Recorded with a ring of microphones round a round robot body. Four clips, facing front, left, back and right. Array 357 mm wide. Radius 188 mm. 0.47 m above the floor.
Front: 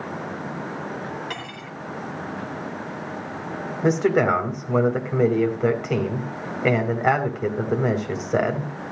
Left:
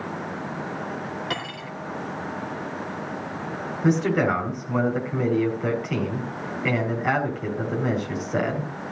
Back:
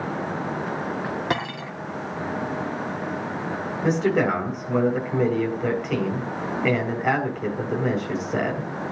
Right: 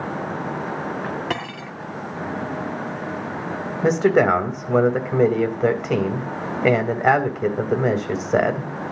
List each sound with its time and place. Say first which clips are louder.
1.3 s cutlery clinking: right 3 dB, back 7 dB; 150° right, 2 m
3.8 s a man speaking: right 5 dB, front 2 dB; 70° right, 3 m